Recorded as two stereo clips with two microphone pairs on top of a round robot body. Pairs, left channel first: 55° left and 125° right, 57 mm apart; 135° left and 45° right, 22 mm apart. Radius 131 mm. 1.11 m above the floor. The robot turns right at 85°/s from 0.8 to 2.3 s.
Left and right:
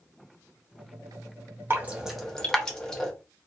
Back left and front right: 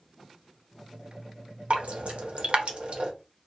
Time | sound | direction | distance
1.7 | dripping | 70° right | 0.7 m